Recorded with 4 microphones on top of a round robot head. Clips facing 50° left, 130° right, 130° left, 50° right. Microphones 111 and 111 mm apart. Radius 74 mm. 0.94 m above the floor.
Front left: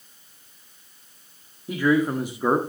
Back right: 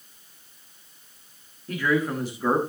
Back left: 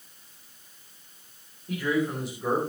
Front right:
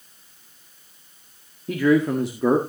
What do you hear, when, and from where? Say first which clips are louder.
1.7 s a man speaking: front left 4 dB, front right 8 dB; 30° right, 1.7 m